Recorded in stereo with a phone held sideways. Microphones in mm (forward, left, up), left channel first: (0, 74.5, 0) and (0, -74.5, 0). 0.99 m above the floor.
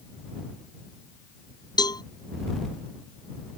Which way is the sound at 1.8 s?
25° left (ahead or behind).